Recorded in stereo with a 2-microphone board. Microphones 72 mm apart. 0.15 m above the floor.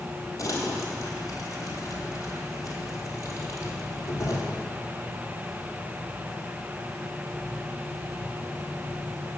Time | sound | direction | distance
0.4 | crumpling | 50° left (ahead or behind) | 2.0 m